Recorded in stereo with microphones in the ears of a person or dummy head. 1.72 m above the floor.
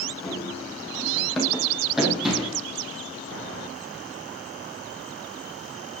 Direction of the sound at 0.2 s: 5° left (ahead or behind).